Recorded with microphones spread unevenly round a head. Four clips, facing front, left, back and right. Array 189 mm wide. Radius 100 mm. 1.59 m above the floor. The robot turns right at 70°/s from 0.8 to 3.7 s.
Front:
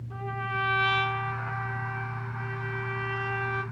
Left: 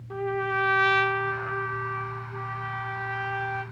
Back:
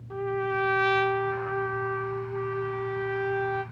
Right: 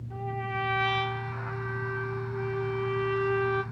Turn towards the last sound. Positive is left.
turn(degrees=-75)